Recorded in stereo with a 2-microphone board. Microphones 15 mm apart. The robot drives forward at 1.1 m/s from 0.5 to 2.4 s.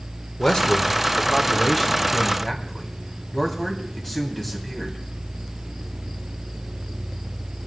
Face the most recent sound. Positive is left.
turn(degrees=15)  # may be behind; listen again after turning